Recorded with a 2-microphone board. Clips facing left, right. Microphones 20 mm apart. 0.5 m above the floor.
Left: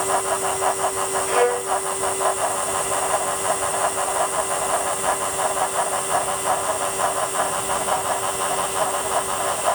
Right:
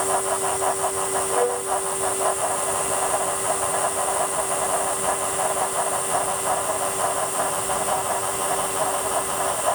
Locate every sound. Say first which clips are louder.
1.3 s a violin: left 5 dB; 60° left (ahead or behind)